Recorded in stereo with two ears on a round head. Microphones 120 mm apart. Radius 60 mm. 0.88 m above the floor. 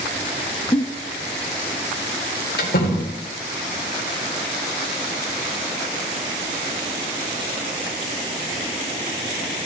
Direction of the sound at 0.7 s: 25° left (ahead or behind).